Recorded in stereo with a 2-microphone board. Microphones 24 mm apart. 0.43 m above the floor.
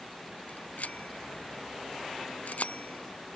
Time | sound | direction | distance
0.5 | a bicycle bell | 85° left | ?